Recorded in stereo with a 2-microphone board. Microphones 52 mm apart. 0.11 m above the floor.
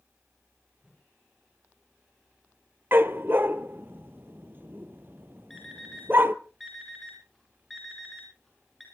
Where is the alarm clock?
5° left (ahead or behind), 6.5 m.